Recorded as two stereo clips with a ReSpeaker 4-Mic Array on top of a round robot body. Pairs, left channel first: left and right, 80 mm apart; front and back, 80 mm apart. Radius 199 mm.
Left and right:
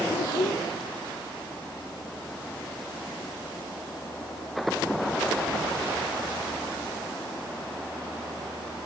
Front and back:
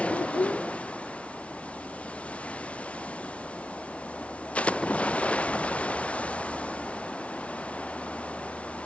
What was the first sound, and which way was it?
A child speaking, 60° left.